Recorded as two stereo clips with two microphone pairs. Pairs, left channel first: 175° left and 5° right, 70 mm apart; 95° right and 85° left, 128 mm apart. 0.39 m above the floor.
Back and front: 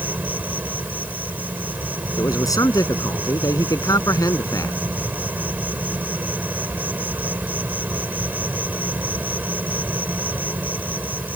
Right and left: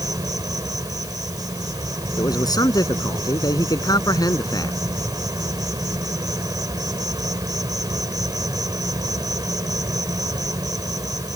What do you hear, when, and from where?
0.0 s an insect: 45° left
2.2 s a man speaking: 155° right